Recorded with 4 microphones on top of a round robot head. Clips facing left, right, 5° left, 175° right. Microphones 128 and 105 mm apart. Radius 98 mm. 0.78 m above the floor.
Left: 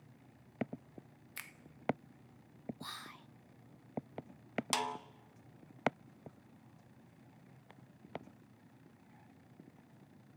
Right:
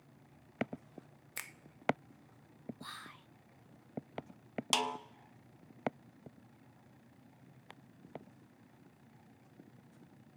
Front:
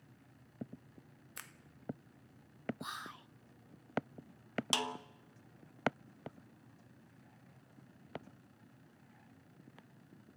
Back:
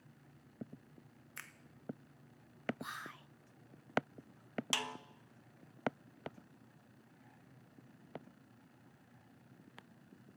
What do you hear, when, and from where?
1.4 s a finger snap: 60° right, 1.2 m
2.8 s whispering: 65° left, 0.6 m
4.7 s a snare drum: 35° right, 1.1 m